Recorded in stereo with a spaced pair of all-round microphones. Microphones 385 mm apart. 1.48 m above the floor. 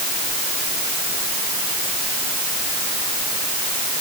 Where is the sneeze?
No sneeze in this recording.